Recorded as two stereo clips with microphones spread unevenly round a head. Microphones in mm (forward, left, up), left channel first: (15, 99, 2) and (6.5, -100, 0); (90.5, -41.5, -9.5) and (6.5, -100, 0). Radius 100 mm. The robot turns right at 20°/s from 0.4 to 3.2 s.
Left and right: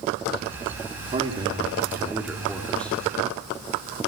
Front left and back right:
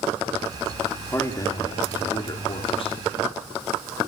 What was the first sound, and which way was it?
A man speaking, 30° right.